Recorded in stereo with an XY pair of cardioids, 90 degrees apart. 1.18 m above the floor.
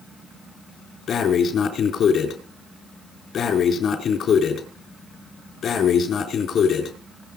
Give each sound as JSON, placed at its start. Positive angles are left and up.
{"t": 1.1, "sound": "breathing", "azimuth_deg": 65, "distance_m": 4.0}